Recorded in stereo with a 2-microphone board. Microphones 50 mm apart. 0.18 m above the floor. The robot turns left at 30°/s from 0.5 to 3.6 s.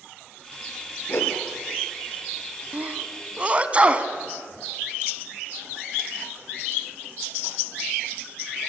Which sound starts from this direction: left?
A whoosh, at 1.1 s.